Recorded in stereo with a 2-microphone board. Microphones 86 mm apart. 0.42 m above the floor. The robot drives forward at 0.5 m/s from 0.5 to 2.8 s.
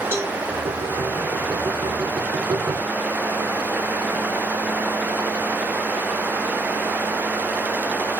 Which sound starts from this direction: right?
A cowbell, at 0.1 s.